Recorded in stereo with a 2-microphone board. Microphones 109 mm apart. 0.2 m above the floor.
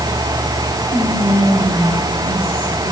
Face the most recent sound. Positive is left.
turn(degrees=60)  # may be behind; listen again after turning